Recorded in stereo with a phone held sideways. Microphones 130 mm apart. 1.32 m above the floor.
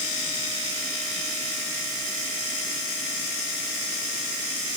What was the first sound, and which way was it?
Only background noise.